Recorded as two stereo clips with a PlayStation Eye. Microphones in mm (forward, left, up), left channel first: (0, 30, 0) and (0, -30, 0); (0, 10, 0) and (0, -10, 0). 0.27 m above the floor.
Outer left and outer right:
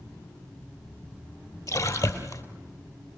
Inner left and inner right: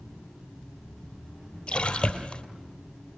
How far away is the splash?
About 3 m.